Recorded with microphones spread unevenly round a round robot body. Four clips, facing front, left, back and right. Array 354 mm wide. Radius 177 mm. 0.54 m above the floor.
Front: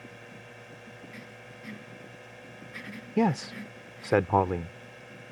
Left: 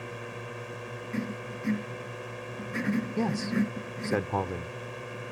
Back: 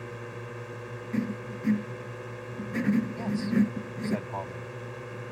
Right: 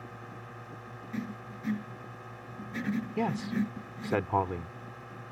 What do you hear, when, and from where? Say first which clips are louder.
0.0 s a drone: left 6 dB, back 8 dB; 160° left
1.1 s writing: left 3 dB, back 15 dB; 170° left
3.2 s a man speaking: left 1 dB, back 1 dB; straight ahead